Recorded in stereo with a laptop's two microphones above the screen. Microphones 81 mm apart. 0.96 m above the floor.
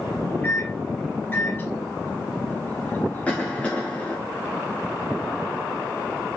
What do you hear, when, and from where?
0.4 s a microwave: 25° left (ahead or behind), 3 m
3.3 s a cough: 15° left (ahead or behind), 1.1 m